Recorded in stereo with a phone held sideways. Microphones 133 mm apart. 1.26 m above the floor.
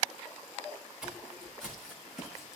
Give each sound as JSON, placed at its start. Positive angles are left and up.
{"t": 1.0, "sound": "footsteps", "side_deg": -5, "distance_m": 6.0}